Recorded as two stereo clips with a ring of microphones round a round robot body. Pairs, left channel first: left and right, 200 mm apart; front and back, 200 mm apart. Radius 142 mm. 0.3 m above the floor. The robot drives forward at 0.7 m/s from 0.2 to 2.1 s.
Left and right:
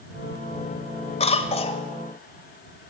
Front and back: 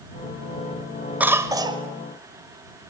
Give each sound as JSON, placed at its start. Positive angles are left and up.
{"t": 1.2, "sound": "a cough", "azimuth_deg": 105, "distance_m": 1.4}